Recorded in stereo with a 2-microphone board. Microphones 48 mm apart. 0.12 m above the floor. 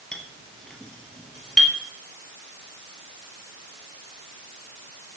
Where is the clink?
15° left (ahead or behind), 1.7 m.